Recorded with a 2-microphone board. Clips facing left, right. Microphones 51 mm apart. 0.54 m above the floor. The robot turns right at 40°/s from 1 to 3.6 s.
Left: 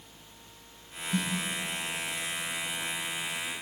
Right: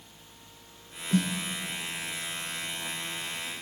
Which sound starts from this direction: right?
A snare drum, at 1.1 s.